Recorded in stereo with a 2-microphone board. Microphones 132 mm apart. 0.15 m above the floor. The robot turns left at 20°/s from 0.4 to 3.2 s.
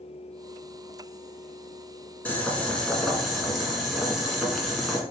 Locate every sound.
2.2 s boiling: 15° left (ahead or behind), 1.3 m; by 5.0 s centre (ahead or behind), 1.3 m